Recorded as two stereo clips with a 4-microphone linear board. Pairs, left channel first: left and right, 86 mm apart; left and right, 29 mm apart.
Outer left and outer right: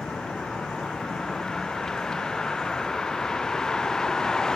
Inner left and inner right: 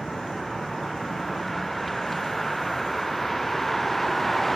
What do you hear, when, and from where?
0.0 s a vehicle: 5° left (ahead or behind)